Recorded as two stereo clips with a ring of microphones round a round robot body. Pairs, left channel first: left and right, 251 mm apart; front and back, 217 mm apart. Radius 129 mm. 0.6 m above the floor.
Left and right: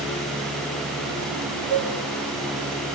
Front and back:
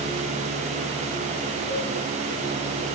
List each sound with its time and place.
1.7 s a cowbell: 25° left, 8 m